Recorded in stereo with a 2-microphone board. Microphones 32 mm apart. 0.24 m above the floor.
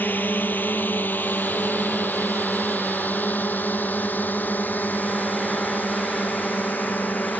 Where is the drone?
80° left; by 7.4 s 70° left (ahead or behind).